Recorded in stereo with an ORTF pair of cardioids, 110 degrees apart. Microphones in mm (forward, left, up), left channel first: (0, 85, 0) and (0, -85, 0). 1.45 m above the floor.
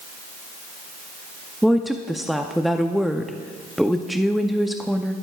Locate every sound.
1.6 s a woman speaking: straight ahead, 0.5 m